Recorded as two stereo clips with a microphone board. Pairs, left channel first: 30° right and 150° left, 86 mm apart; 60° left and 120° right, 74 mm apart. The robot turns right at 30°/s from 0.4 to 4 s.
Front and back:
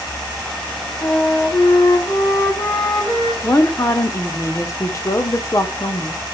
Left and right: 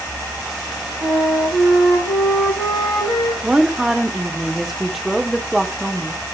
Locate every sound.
1.0 s a flute: 70° right, 5 m; by 3.3 s straight ahead, 5 m
3.4 s a woman speaking: 55° right, 1.1 m; by 6.2 s 35° right, 1.1 m